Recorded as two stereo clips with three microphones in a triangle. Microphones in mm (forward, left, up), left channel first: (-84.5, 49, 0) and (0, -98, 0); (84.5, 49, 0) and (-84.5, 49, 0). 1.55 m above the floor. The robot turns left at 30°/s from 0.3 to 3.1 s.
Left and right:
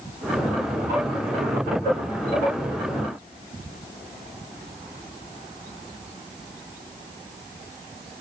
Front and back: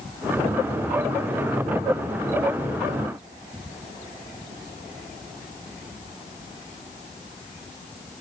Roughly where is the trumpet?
I don't hear a trumpet.